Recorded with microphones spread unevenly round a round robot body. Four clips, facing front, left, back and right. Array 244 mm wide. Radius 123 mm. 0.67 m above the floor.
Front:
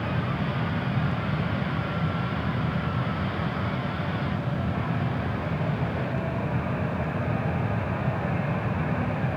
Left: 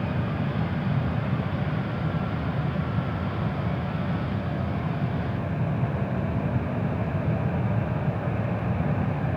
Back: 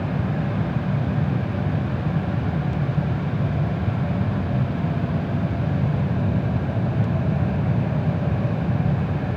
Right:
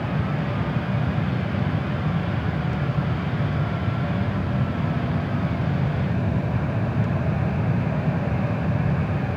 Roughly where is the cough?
I don't hear a cough.